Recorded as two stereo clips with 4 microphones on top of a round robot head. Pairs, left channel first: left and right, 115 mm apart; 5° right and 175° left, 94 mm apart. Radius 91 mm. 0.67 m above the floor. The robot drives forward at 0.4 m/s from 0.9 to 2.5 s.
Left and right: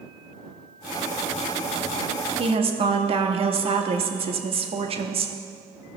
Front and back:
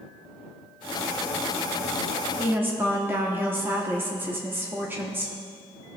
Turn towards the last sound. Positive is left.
turn(degrees=-115)